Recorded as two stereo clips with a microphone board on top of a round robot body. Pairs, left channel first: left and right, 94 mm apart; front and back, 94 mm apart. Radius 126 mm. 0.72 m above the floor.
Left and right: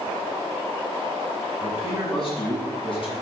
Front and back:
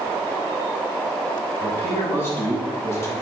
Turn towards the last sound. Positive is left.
turn(degrees=60)